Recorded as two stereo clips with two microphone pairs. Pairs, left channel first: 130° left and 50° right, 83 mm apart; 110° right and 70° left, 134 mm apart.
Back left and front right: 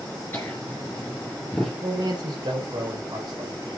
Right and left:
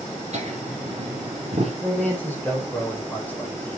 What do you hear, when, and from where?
0.3 s laughter: 75° left, 2.5 m; by 1.7 s 45° left, 2.5 m
1.8 s a man speaking: 35° right, 4.5 m